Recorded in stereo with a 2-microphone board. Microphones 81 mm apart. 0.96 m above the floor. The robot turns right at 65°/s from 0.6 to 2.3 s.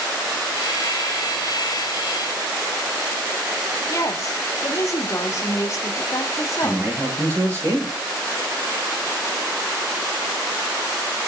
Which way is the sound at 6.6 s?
30° right (ahead or behind).